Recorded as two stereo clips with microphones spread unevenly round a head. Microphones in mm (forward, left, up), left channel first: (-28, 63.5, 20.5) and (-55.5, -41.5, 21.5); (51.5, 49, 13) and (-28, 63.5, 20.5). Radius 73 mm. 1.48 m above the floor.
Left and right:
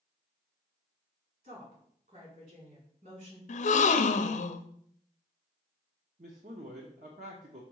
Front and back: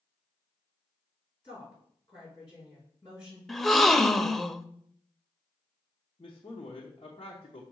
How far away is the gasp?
About 0.6 m.